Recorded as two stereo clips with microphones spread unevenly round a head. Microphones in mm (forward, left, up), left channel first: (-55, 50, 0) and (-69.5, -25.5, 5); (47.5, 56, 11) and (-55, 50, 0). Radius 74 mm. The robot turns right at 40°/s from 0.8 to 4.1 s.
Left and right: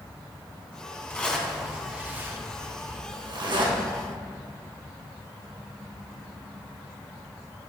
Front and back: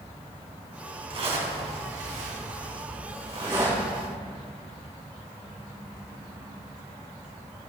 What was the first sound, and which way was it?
A zipper, 150° left.